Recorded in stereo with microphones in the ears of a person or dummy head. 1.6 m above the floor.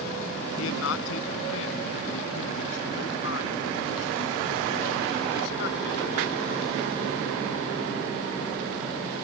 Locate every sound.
0.6 s a man speaking: 85° left; by 6.7 s 65° left (ahead or behind)